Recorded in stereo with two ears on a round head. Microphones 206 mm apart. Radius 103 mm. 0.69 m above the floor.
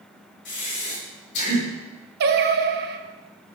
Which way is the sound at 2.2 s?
45° right (ahead or behind).